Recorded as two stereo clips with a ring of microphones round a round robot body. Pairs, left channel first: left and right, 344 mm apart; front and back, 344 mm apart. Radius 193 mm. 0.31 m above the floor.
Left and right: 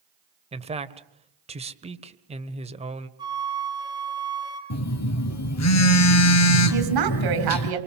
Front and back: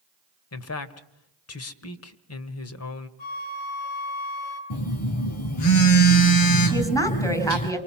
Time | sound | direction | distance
0.5 | a man speaking | 25° right | 1.7 m
3.2 | a flute | 10° right | 4 m
4.7 | a phone buzzing | 45° left | 2 m
6.7 | a woman speaking | 80° right | 3.5 m